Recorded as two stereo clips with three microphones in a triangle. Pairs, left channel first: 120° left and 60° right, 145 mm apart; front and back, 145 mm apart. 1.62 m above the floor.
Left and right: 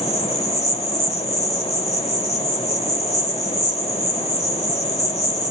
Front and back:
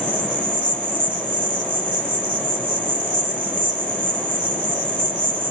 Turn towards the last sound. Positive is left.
turn(degrees=160)